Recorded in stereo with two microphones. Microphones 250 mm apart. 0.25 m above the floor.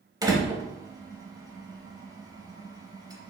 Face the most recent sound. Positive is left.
turn(degrees=-15)  # may be behind; listen again after turning